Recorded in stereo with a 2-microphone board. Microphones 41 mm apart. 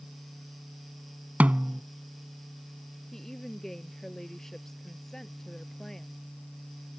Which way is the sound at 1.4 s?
40° right (ahead or behind).